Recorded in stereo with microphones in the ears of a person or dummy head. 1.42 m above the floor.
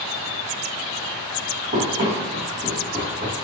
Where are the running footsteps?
25° right (ahead or behind), 1.6 m; by 3.4 s centre (ahead or behind), 1.4 m.